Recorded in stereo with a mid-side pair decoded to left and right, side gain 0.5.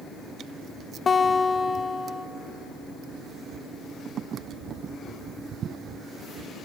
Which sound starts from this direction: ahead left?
A guitar, at 1.1 s.